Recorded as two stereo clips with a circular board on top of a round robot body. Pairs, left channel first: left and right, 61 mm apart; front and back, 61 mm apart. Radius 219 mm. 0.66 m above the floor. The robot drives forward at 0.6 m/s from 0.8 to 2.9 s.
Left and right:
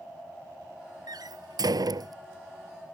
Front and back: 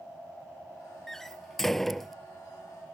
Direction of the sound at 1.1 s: 85° right.